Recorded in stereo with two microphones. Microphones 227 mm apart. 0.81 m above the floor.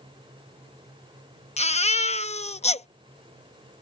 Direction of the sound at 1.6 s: 30° left (ahead or behind).